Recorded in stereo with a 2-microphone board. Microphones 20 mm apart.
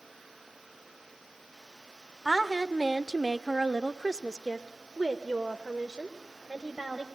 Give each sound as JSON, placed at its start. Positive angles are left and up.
{"t": 2.2, "sound": "a woman speaking", "side_deg": 0, "distance_m": 1.1}